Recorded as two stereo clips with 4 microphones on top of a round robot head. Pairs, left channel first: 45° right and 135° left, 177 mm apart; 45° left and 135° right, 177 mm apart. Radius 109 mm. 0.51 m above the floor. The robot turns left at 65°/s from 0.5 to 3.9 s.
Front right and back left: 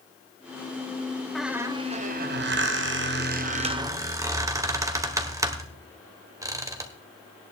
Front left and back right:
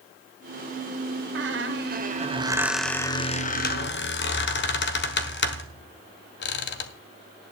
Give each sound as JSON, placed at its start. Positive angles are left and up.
{"t": 1.4, "sound": "a squeak", "azimuth_deg": -130, "distance_m": 1.5}